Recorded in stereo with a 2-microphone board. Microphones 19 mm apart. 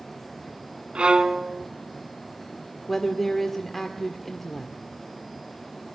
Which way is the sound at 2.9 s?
15° left (ahead or behind).